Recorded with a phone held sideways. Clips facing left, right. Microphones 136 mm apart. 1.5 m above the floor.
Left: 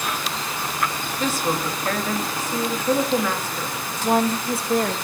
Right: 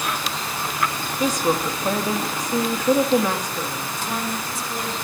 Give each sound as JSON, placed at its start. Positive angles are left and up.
{"t": 1.2, "sound": "a woman speaking", "side_deg": -15, "distance_m": 2.5}
{"t": 4.0, "sound": "a woman speaking", "side_deg": 60, "distance_m": 2.5}